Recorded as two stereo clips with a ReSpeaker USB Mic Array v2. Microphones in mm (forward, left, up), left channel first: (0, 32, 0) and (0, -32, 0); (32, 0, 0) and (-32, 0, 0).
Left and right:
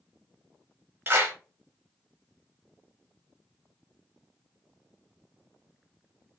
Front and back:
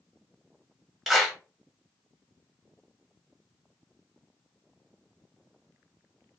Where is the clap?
95° right, 0.9 m.